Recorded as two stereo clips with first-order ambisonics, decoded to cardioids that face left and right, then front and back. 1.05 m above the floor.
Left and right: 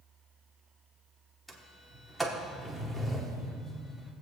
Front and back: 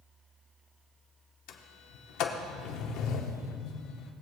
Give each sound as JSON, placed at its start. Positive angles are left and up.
{"t": 1.5, "sound": "a sliding door", "azimuth_deg": 0, "distance_m": 1.0}